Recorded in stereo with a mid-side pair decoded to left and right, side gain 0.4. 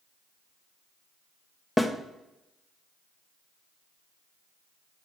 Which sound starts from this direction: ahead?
A snare drum, at 1.8 s.